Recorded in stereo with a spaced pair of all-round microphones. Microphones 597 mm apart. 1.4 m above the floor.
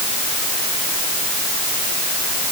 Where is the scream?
I don't hear a scream.